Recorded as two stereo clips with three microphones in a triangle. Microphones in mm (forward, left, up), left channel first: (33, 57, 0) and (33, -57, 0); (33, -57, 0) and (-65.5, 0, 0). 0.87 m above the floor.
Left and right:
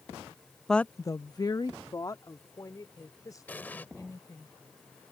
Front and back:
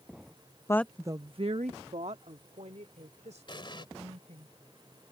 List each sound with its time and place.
0.7 s a woman speaking: 5° left; by 4.5 s 150° left
3.5 s an explosion: 15° left